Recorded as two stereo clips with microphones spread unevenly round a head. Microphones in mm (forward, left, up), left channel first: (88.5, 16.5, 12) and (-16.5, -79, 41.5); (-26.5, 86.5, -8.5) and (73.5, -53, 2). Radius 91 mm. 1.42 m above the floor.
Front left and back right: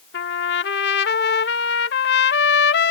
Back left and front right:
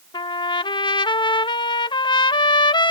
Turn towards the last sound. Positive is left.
turn(degrees=60)